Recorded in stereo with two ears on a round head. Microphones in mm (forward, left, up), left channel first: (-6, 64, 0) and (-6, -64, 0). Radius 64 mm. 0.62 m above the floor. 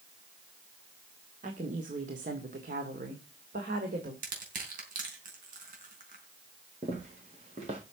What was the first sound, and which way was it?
A woman speaking, 55° right (ahead or behind).